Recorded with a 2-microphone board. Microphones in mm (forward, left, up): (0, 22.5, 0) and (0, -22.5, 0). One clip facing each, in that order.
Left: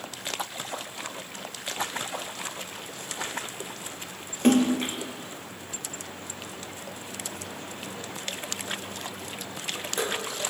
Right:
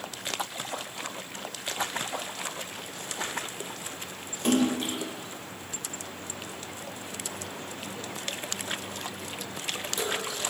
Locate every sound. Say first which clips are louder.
4.4 s a splash: left 4 dB; 50° left (ahead or behind), 1.0 m